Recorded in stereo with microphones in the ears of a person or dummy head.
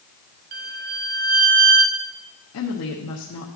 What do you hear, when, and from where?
0.5 s a violin: 40° right (ahead or behind), 0.6 m
2.5 s a woman speaking: 75° left (ahead or behind), 1.0 m